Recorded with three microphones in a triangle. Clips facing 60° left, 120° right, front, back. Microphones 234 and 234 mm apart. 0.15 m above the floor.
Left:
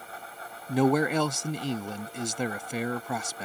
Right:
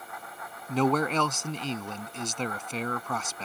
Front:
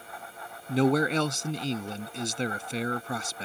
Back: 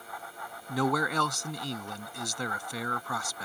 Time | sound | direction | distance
0.7 | a man speaking | straight ahead | ?